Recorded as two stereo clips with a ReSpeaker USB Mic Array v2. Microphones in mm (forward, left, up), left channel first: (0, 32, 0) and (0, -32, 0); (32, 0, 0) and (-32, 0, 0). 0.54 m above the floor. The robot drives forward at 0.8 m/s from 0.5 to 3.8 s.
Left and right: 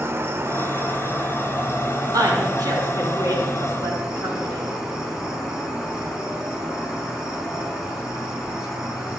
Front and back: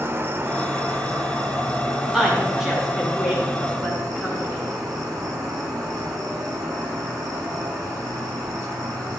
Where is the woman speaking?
95° right, 4 m; by 4.7 s 115° right, 4.5 m.